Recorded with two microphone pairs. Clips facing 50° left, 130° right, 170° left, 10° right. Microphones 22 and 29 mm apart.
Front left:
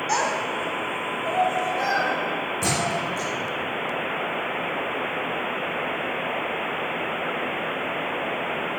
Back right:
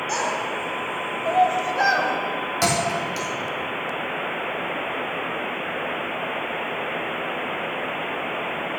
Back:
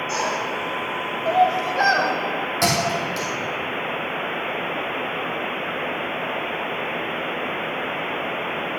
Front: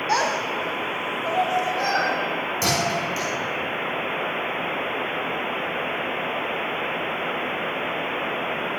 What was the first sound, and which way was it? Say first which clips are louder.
A child speaking: front left 2 dB, front 4 dB; 20° right.